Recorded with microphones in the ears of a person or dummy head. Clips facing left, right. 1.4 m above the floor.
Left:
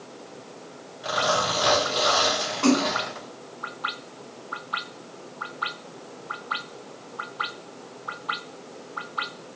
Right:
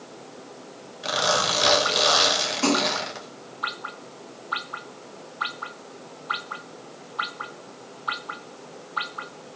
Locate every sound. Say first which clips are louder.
1.0 s a zipper: even; 30° right (ahead or behind), 0.9 m
2.6 s a splash: left 3 dB; 40° right (ahead or behind), 1.4 m